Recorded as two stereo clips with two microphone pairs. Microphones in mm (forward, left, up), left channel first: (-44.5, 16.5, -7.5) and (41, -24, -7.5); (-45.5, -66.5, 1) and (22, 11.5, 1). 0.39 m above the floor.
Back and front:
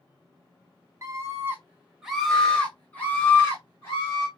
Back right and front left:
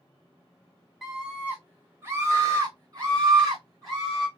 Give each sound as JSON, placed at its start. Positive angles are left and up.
{"t": 1.0, "sound": "a scream", "azimuth_deg": -40, "distance_m": 1.2}